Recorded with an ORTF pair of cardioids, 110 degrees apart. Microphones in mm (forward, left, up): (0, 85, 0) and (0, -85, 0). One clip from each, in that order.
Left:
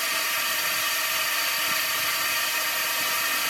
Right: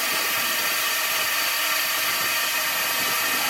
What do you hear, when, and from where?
0.0 s a drone: 10° right